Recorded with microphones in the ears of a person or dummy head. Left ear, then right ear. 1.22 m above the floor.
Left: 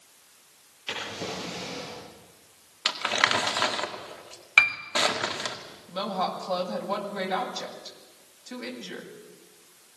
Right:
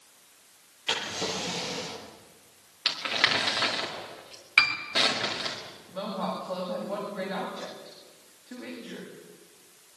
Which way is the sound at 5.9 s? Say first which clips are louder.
Left 4 dB; 90° left.